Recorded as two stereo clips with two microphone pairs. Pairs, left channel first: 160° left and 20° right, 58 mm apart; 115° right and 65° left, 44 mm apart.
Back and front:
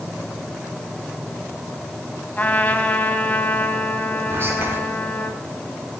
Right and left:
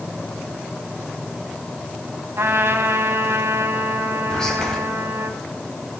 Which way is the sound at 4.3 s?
40° right.